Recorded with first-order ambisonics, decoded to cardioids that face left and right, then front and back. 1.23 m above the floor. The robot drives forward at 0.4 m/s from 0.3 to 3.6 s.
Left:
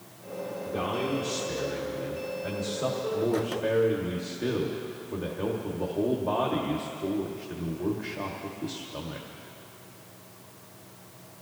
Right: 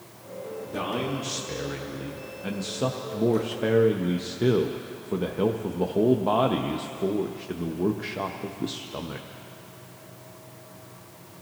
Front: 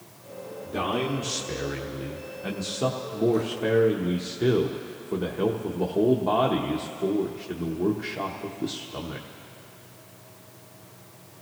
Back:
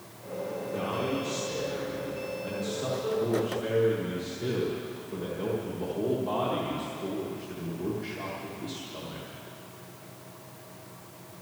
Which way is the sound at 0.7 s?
25° right.